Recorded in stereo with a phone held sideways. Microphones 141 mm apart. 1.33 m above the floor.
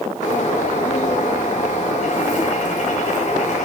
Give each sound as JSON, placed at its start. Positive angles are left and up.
{"t": 0.2, "sound": "a bird", "side_deg": 60, "distance_m": 2.0}